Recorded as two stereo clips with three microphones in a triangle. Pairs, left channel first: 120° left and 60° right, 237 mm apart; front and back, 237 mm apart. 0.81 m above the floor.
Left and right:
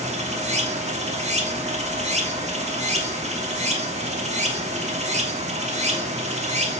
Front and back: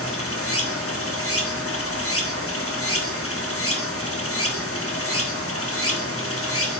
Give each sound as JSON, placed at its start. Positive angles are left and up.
{"t": 0.0, "sound": "running water", "azimuth_deg": 0, "distance_m": 1.2}